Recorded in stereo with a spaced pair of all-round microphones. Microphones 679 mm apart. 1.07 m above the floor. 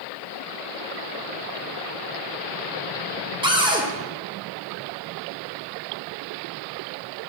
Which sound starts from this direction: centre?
A cupboard door, at 3.4 s.